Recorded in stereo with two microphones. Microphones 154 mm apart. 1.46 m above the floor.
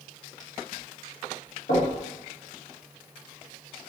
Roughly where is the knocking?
Left.